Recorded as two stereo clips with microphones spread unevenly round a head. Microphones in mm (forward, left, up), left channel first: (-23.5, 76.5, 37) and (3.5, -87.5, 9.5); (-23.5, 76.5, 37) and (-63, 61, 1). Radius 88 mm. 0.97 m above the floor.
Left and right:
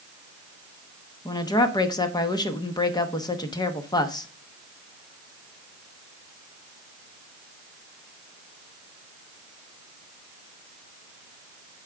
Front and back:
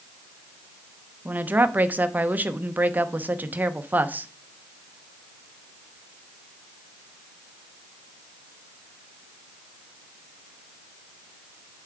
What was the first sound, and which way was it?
A woman speaking, 170° left.